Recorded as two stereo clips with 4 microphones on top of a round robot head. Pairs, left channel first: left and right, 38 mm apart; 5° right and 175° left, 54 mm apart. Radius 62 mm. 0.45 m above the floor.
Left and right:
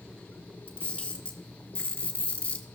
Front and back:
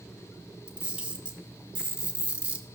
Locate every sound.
0.7 s a camera shutter: 115° left, 2.5 m